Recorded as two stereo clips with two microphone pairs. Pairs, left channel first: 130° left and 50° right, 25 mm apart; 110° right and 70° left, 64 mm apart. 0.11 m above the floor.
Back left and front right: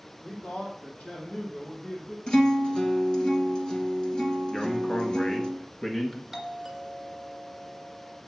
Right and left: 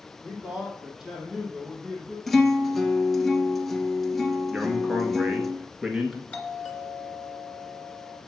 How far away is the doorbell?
About 2.5 m.